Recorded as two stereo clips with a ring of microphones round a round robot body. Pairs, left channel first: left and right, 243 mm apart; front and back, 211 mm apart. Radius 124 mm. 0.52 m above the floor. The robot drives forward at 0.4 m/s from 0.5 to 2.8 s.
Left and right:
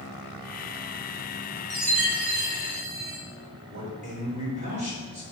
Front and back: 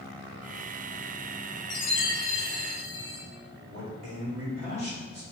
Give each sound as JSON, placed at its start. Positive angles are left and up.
{"t": 1.7, "sound": "a chime", "azimuth_deg": -45, "distance_m": 1.6}
{"t": 3.7, "sound": "a man speaking", "azimuth_deg": -145, "distance_m": 1.6}